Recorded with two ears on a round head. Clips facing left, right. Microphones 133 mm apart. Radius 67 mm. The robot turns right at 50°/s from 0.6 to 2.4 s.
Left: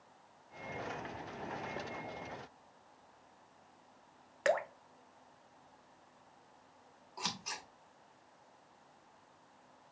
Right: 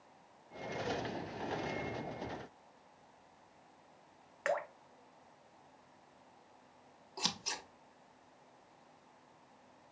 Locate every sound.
4.5 s dripping: 40° left (ahead or behind), 0.5 m
7.2 s scissors: 35° right (ahead or behind), 0.9 m